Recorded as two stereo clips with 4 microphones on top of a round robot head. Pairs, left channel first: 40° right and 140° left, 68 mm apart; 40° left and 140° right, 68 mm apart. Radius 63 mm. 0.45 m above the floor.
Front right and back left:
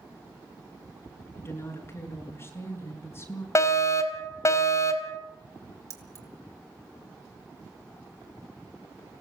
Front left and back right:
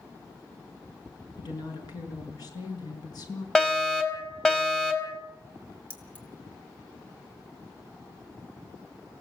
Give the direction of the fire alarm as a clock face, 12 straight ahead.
1 o'clock.